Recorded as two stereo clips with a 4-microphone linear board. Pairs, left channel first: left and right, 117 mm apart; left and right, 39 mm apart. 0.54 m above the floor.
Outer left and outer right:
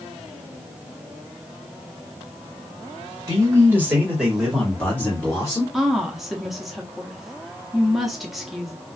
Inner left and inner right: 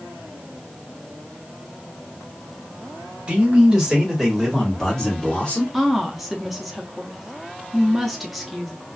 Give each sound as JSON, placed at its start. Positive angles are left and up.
{"t": 3.3, "sound": "a man speaking", "side_deg": -25, "distance_m": 1.6}
{"t": 5.7, "sound": "a woman speaking", "side_deg": 0, "distance_m": 0.7}